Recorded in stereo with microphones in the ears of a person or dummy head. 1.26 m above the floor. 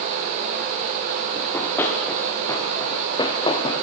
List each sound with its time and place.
1.4 s running footsteps: 5° left (ahead or behind), 6 m; by 3.8 s 30° left (ahead or behind), 4 m